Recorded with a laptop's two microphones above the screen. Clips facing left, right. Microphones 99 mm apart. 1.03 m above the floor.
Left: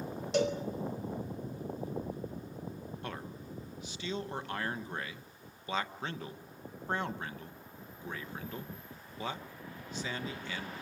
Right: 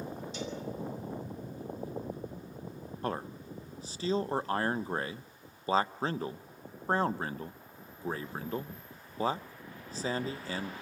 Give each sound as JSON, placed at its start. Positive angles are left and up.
{"t": 0.3, "sound": "a cowbell", "side_deg": 75, "distance_m": 3.0}
{"t": 3.0, "sound": "a man speaking", "side_deg": -35, "distance_m": 1.1}